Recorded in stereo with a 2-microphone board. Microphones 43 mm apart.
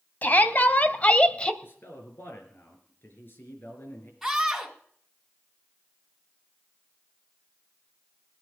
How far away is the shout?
About 1.4 m.